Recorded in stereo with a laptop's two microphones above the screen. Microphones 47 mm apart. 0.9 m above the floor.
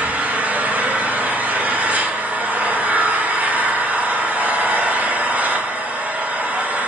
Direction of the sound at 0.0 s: 30° right (ahead or behind).